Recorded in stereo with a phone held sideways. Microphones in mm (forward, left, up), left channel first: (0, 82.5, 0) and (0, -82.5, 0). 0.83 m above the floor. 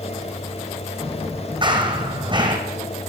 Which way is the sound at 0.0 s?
40° left (ahead or behind).